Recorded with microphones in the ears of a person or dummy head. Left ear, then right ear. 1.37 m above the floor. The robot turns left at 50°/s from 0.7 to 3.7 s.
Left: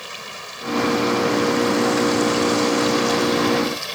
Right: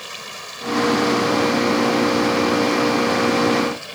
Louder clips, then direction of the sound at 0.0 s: Even; straight behind.